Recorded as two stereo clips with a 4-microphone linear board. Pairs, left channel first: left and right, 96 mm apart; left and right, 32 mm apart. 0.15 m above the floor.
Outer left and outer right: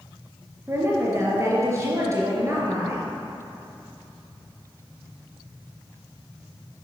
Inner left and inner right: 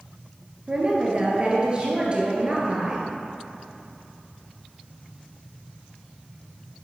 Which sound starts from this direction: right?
A woman speaking, at 0.7 s.